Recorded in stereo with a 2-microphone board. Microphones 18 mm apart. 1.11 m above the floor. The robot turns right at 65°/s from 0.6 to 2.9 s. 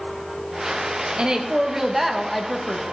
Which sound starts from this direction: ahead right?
A woman speaking, at 1.2 s.